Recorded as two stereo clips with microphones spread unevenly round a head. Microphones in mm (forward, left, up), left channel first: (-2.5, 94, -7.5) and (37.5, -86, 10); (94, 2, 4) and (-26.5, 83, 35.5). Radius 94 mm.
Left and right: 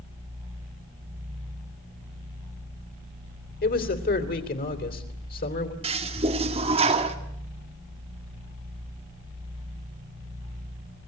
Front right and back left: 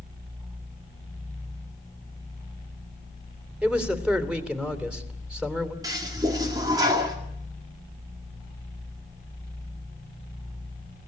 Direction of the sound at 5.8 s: 140° right.